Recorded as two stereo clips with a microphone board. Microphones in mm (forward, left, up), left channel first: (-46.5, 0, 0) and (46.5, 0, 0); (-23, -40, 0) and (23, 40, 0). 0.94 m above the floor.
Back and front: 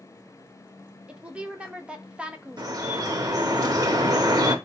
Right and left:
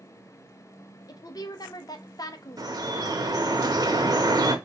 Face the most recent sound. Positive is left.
turn(degrees=30)